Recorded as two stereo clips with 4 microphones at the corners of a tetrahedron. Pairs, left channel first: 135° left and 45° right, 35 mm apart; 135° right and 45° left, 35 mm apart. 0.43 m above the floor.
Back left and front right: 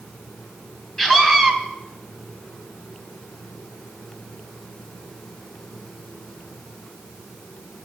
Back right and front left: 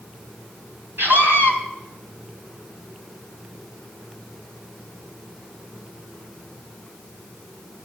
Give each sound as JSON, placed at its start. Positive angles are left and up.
{"t": 1.0, "sound": "a scream", "azimuth_deg": 60, "distance_m": 6.0}